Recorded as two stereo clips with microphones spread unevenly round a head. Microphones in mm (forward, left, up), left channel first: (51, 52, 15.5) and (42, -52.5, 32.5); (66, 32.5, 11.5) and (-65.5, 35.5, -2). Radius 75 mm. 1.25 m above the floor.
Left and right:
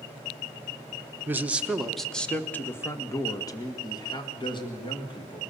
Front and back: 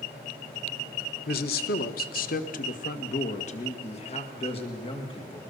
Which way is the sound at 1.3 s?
20° right.